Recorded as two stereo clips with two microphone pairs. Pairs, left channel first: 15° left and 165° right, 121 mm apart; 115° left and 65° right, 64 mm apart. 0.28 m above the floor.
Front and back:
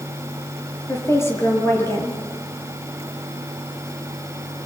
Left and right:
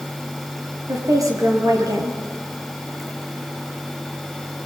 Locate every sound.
0.9 s a woman speaking: 50° right, 6 m